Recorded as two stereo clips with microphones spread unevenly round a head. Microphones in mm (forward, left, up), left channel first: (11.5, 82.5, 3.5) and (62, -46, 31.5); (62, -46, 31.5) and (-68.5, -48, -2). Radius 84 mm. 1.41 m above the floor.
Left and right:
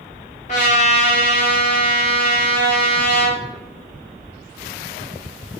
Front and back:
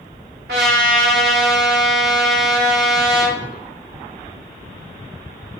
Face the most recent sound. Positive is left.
turn(degrees=165)